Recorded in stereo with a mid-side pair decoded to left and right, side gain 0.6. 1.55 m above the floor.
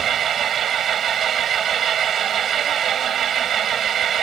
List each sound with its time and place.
0.0 s an engine running: 45° right